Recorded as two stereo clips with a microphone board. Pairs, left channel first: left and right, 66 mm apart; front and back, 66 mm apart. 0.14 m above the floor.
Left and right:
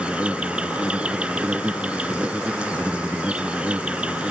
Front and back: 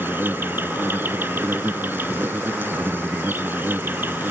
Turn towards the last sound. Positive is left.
turn(degrees=-150)